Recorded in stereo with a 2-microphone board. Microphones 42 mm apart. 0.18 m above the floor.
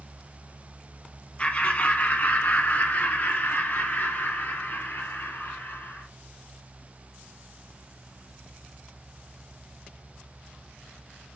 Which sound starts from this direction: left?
Laughter, at 1.4 s.